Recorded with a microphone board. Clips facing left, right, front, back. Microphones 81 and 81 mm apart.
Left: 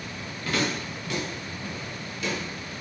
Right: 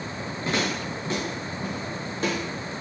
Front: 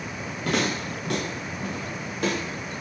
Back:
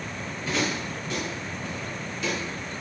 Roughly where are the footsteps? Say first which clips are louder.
Right 1 dB, front 2 dB; ahead right.